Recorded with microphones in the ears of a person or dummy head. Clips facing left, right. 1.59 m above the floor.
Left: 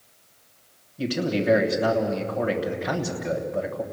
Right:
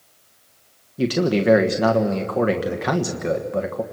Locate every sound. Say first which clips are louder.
1.0 s a man speaking: right 6 dB; 65° right (ahead or behind), 1.3 m